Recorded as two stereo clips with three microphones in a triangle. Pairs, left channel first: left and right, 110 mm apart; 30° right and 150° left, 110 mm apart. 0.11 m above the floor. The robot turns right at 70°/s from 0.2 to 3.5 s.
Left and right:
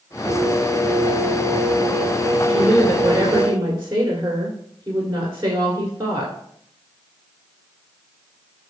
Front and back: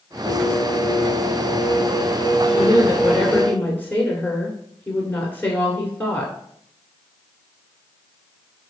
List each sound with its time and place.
0.2 s singing: 140° right, 1.9 m; by 3.5 s 90° left, 1.9 m
2.5 s a woman speaking: 155° right, 1.3 m; by 6.3 s 85° right, 1.3 m